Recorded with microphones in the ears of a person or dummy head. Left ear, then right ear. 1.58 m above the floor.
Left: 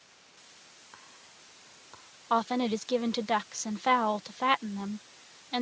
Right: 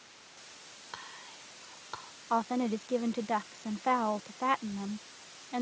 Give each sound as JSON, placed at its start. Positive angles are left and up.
{"t": 0.9, "sound": "whispering", "side_deg": -75}
{"t": 2.3, "sound": "a woman speaking", "side_deg": 85}